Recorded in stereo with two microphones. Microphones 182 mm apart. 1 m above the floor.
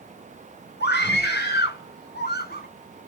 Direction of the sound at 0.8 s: 65° left (ahead or behind).